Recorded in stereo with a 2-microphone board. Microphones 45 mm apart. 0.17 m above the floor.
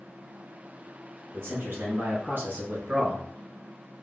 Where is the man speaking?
55° right (ahead or behind), 2.0 m; by 3.2 s 30° right (ahead or behind), 1.2 m.